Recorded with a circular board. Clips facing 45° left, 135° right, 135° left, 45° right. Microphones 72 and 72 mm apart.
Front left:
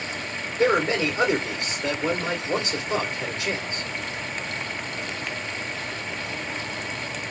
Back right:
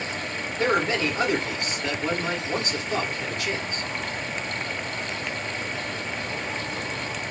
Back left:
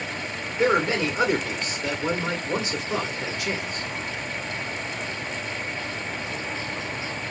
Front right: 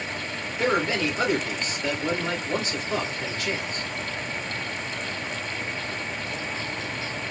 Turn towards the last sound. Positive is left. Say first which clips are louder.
# front left 2 dB, back left 3 dB
turn(degrees=75)